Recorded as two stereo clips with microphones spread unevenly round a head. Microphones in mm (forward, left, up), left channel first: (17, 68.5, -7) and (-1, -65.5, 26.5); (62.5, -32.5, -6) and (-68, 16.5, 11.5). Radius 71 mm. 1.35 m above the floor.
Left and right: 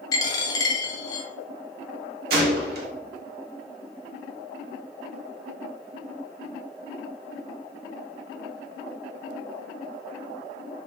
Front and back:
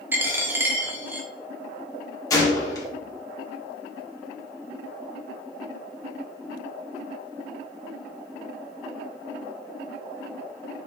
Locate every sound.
0.1 s a dropped coin: 145° left, 0.6 m
2.3 s a gunshot: 80° right, 1.0 m